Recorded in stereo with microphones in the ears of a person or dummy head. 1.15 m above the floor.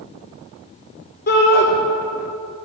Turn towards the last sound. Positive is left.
turn(degrees=45)  # may be behind; listen again after turning